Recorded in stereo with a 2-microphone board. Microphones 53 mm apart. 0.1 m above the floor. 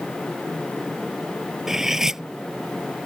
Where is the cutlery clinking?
10° right (ahead or behind).